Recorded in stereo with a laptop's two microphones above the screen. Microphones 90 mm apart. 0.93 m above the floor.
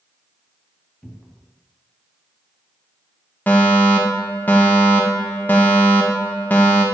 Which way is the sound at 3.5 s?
20° left (ahead or behind).